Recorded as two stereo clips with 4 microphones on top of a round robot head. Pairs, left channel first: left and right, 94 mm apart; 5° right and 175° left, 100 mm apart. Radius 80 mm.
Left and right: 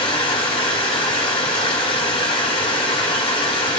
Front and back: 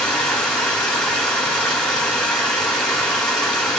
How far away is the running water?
About 1.7 m.